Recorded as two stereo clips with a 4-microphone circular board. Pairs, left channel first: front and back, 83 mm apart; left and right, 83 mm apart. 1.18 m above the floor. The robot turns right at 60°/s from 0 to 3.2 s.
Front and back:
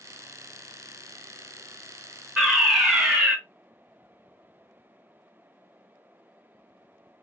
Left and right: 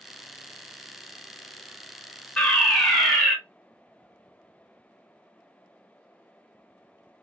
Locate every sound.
2.4 s a fire alarm: 105° left, 0.9 m; by 3.4 s 155° left, 0.9 m